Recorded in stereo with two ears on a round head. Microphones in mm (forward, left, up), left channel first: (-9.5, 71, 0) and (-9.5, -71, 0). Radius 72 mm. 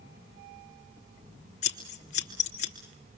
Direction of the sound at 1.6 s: 50° left (ahead or behind).